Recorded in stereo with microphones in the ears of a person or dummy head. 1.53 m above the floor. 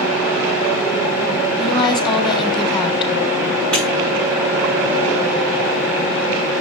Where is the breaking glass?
10° left (ahead or behind), 8.5 m.